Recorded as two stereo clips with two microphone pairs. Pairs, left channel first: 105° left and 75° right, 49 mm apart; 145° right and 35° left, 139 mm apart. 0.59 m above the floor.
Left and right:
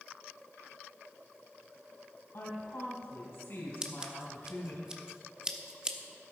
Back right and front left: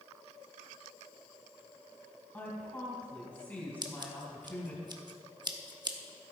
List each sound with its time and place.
2.3 s a woman speaking: 135° left, 4 m
3.8 s scissors: 10° right, 1.0 m